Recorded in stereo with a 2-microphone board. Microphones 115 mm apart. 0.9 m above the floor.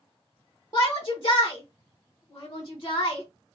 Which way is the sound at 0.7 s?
35° left (ahead or behind).